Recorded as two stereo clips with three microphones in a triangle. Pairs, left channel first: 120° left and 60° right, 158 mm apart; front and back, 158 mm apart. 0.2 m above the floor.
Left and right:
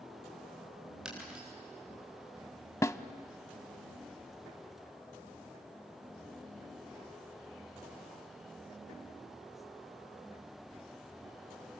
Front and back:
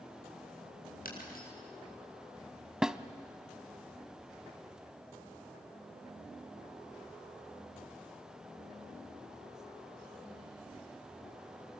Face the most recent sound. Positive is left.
turn(degrees=105)